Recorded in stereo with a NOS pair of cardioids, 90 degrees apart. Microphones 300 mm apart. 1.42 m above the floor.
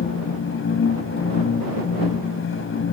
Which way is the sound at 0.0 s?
50° left.